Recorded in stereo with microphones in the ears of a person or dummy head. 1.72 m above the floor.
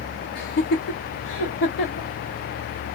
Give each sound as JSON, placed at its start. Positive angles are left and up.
{"t": 0.3, "sound": "laughter", "side_deg": 45, "distance_m": 0.9}